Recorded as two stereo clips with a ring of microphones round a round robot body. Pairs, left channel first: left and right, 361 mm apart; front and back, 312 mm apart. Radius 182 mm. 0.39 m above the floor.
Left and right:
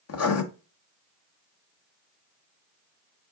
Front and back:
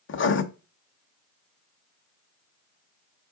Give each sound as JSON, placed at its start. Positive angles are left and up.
{"t": 0.1, "sound": "writing", "azimuth_deg": 45, "distance_m": 1.0}